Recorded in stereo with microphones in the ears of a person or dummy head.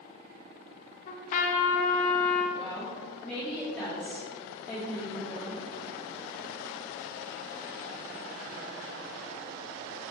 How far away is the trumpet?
About 1.0 m.